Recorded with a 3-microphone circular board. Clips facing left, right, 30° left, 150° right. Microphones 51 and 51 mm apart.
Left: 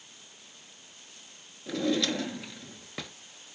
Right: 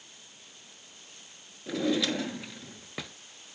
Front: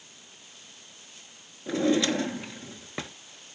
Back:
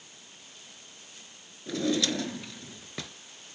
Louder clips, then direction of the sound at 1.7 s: Even, front 4 dB; 15° right.